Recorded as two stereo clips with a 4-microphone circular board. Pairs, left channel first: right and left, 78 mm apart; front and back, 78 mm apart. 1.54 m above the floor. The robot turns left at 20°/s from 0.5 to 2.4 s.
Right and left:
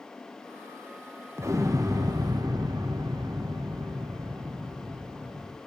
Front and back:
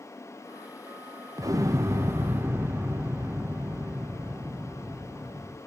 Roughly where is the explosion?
Behind left.